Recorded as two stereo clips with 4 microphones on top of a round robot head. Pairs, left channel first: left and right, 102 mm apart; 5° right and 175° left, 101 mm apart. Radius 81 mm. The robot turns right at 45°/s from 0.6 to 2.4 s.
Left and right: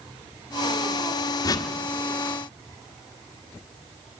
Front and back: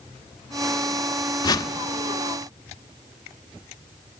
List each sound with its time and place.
1.4 s a whoosh: 40° left, 1.5 m; by 1.7 s 55° left, 1.5 m